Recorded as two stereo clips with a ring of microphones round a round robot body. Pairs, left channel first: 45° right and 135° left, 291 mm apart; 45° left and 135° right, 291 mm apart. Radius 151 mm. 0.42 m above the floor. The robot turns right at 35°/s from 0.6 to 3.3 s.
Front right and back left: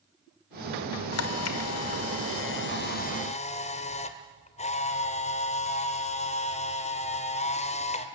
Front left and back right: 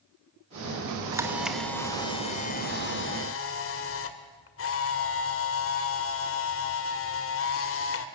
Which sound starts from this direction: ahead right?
A camera shutter, at 1.1 s.